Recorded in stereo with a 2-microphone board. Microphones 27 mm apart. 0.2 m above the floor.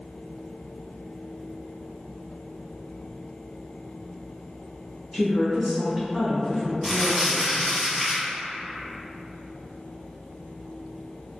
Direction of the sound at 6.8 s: 5° right (ahead or behind).